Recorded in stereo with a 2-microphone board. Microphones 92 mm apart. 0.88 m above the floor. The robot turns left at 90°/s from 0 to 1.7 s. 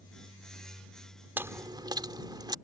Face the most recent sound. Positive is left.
turn(degrees=-50)